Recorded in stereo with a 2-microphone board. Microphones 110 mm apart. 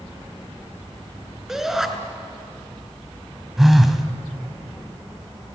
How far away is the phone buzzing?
About 1.5 m.